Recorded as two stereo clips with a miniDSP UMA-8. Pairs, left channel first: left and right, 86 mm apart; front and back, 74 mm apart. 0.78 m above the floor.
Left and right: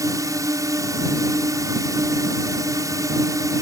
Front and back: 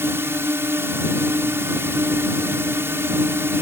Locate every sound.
0.0 s a drone: 130° right